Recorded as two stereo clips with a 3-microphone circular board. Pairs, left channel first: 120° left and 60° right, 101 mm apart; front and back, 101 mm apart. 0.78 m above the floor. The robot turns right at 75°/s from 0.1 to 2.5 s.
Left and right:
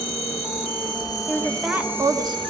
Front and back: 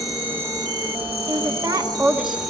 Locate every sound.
0.0 s an insect: 90° left, 3 m; by 2.5 s 90° right, 3 m
1.3 s a woman speaking: 170° right, 1.6 m; by 2.4 s 85° right, 1.6 m